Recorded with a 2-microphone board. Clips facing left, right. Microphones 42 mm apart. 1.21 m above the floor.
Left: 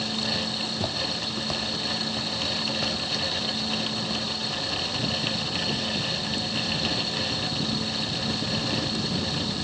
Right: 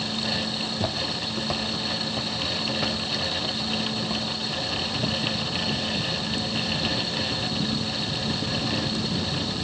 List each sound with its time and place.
0.6 s footsteps: 5° right (ahead or behind), 1.9 m; by 5.2 s 10° right (ahead or behind), 5 m